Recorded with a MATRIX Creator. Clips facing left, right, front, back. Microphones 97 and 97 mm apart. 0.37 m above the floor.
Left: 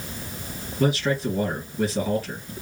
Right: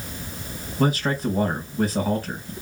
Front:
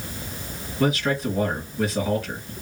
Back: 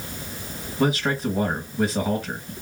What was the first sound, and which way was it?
A man speaking, 125° right.